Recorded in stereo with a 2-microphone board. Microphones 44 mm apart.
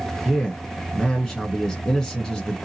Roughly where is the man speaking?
Centre.